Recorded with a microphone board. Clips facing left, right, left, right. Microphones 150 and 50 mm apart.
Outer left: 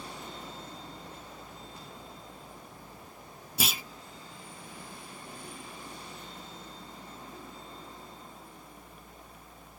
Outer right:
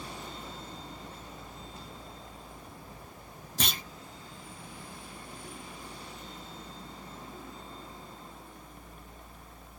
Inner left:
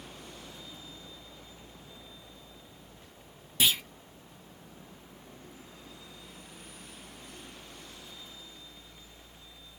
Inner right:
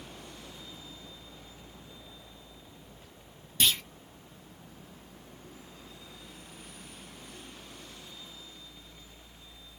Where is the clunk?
5° left (ahead or behind), 0.5 m.